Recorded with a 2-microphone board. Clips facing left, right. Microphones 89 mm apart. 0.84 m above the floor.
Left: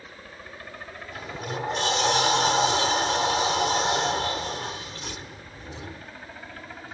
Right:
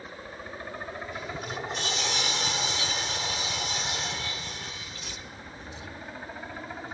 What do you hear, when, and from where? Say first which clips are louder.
0.0 s a helicopter: right 3 dB; 15° right (ahead or behind); by 6.9 s 10° right (ahead or behind)
1.1 s a sliding door: left 6 dB; 50° left (ahead or behind)